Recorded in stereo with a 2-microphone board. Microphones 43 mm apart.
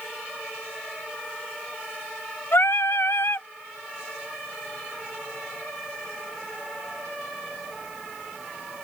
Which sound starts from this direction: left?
Singing, at 2.5 s.